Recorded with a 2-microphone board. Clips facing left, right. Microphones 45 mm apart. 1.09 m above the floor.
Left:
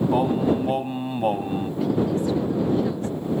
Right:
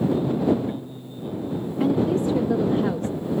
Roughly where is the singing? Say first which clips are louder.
Left 1 dB; left.